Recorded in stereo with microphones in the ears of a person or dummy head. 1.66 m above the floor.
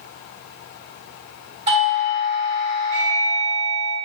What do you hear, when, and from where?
1.7 s a doorbell: 30° right (ahead or behind), 0.7 m